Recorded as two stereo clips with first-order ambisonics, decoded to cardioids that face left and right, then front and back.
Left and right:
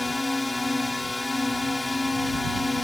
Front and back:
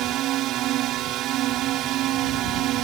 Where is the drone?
170° left.